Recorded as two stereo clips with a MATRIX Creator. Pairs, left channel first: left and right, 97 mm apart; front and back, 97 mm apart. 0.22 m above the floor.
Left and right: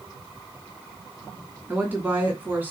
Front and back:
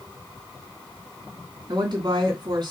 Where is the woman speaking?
160° right, 2.5 m.